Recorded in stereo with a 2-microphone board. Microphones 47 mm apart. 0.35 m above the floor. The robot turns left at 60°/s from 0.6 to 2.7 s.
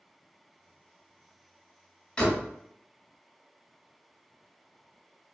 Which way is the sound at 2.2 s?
20° left (ahead or behind).